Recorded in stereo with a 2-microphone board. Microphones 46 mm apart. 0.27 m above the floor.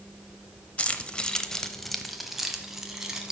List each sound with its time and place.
0.8 s keys jangling: 30° left (ahead or behind), 0.6 m; by 3.3 s 15° right (ahead or behind), 1.3 m